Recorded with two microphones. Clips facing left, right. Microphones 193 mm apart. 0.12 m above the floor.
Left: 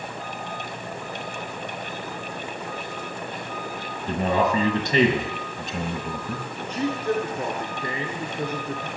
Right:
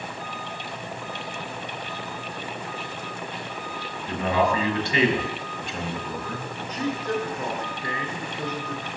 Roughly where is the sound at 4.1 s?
Left.